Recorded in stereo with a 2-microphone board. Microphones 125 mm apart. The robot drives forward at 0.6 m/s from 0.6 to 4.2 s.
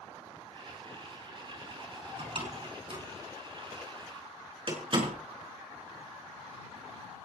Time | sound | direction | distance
2.2 | a door slam | 55° right (ahead or behind) | 4.5 m